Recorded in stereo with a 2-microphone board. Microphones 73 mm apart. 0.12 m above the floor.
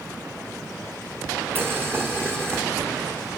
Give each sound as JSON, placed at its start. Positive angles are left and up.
{"t": 1.6, "sound": "boiling", "side_deg": -35, "distance_m": 2.0}